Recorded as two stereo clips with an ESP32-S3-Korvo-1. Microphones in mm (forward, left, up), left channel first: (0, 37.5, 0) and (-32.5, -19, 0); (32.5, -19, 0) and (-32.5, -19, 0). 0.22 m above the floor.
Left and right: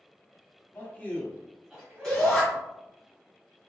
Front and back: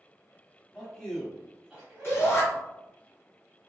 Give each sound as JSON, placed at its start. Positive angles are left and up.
{"t": 0.7, "sound": "a man speaking", "azimuth_deg": 60, "distance_m": 1.1}
{"t": 2.0, "sound": "a shout", "azimuth_deg": -15, "distance_m": 1.8}